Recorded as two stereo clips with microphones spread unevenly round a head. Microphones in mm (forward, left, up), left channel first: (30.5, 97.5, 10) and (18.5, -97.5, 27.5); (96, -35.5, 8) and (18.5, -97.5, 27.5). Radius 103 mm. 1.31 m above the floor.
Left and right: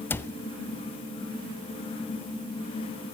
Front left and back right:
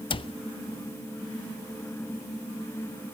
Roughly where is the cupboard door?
Ahead.